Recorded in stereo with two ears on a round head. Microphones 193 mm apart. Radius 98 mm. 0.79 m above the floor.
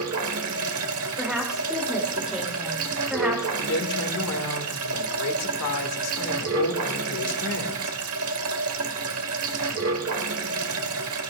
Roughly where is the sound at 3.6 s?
Left.